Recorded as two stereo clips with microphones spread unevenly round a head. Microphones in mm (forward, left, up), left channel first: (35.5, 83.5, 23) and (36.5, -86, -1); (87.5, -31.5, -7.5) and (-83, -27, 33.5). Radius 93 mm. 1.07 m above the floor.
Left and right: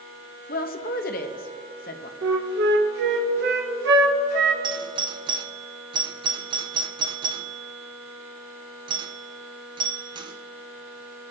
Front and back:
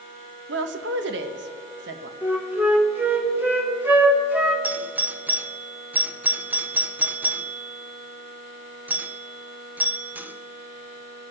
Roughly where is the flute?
Right.